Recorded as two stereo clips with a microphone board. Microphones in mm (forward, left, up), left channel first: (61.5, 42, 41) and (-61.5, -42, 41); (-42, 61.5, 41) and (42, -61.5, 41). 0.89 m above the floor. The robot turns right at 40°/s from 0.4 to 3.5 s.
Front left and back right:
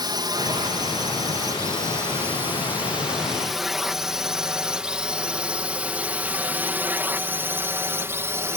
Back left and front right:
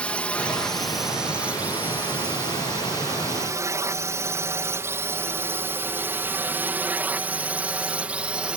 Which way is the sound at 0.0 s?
160° right.